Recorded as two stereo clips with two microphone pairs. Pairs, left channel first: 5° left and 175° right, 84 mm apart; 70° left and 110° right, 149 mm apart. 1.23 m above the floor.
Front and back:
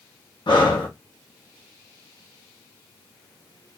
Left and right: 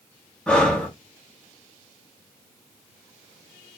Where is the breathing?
10° right, 1.4 m.